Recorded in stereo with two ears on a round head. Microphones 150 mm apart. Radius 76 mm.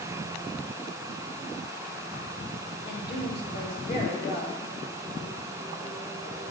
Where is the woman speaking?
60° left (ahead or behind), 1.9 m.